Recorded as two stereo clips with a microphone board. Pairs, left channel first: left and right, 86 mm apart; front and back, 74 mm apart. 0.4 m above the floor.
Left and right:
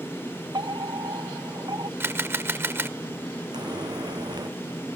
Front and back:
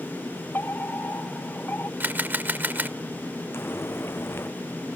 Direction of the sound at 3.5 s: 55° right.